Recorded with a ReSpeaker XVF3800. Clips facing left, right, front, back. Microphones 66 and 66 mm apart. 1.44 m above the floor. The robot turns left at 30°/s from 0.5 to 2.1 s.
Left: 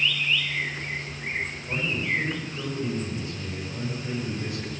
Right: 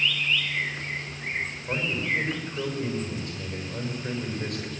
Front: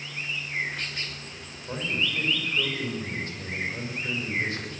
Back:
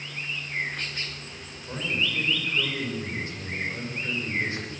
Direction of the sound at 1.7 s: 100° right.